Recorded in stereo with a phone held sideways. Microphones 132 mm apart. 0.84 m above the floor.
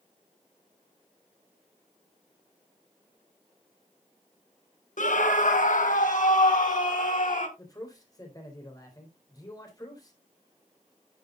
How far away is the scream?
About 1.1 m.